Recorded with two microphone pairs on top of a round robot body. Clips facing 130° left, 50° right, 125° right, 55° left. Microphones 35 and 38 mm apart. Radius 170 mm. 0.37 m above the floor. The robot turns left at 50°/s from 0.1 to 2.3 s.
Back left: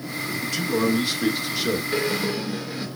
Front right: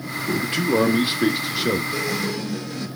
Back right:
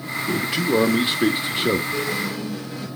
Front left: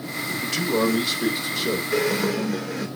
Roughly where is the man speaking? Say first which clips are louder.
Front right 3 dB, back right 2 dB; ahead right.